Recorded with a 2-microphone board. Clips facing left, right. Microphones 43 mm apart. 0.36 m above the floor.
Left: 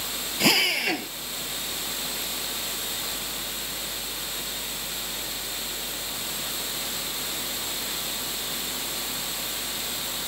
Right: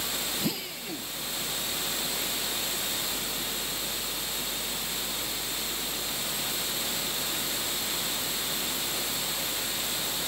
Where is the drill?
80° left.